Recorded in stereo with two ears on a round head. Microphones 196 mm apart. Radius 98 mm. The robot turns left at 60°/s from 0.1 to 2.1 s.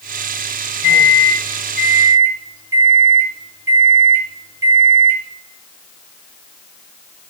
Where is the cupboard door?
I don't hear a cupboard door.